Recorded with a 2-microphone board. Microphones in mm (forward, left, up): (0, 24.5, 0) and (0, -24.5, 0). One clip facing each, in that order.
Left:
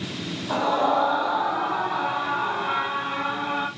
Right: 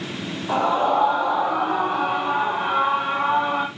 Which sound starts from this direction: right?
A scream, at 0.5 s.